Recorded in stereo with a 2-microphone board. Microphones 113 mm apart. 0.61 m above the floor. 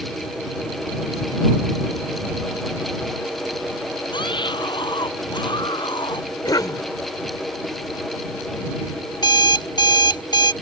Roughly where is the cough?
Left.